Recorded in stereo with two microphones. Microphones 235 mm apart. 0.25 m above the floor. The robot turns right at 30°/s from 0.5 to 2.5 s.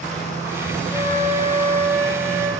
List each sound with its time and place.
0.9 s a flute: 20° left (ahead or behind), 1.7 m; by 2.5 s 5° left (ahead or behind), 1.7 m